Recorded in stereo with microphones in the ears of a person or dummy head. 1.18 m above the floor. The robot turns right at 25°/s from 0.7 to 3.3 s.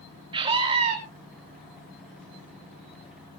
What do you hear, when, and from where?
0.3 s a scream: 30° right (ahead or behind), 2.5 m; by 1.0 s 35° right (ahead or behind), 2.5 m